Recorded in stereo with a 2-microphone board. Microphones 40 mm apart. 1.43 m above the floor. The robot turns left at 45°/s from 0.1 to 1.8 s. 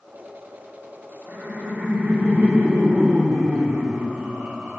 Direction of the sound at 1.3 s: 80° right.